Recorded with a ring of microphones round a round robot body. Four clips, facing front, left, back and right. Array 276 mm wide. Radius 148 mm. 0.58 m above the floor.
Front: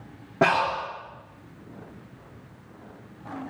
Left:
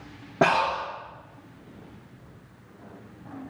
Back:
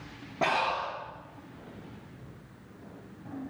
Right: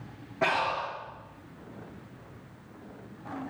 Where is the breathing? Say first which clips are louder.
Left 6 dB, front 6 dB; 65° left, 10 m.